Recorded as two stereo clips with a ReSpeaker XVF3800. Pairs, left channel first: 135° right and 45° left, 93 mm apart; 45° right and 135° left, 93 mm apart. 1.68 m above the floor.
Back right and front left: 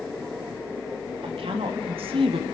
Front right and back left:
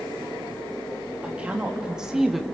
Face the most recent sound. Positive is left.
turn(degrees=45)